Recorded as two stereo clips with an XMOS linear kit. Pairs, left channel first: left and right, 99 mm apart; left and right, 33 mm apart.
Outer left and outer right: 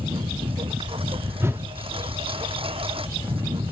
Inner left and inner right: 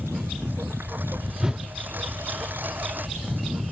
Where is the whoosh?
30° right (ahead or behind).